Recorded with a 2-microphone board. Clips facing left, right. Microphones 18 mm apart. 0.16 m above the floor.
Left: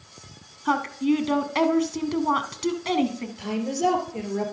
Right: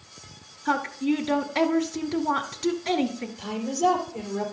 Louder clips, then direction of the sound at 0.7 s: Left 2 dB; 20° left (ahead or behind).